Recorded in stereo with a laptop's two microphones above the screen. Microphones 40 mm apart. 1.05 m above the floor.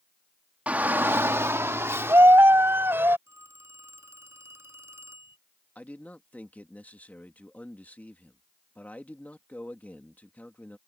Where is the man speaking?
40° left (ahead or behind).